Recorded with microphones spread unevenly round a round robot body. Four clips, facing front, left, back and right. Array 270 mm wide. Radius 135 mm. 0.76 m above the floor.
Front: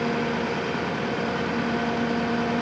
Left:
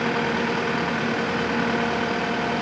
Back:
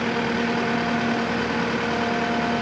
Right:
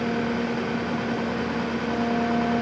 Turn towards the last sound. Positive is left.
No sound to turn to.